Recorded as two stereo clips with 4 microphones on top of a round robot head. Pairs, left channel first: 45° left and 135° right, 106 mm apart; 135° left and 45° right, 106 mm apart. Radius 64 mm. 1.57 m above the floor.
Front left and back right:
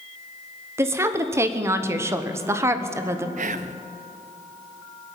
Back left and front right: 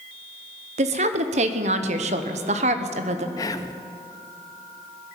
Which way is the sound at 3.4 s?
160° right.